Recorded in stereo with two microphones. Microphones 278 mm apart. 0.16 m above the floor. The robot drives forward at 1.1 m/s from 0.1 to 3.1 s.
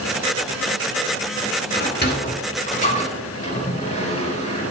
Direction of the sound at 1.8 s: 40° left (ahead or behind).